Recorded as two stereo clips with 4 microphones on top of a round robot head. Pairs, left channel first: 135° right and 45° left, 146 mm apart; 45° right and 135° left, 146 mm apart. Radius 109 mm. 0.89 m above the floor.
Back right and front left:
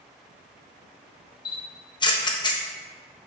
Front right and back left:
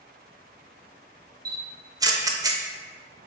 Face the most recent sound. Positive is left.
turn(degrees=-175)